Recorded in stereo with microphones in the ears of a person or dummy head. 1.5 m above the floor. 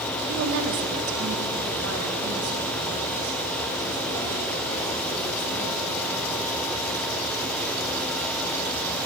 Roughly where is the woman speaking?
Right.